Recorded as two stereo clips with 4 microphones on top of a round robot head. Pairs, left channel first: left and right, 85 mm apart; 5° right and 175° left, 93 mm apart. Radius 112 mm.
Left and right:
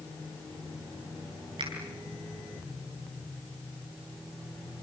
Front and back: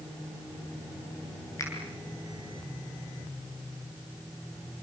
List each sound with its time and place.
1.6 s a finger snap: 65° right, 7 m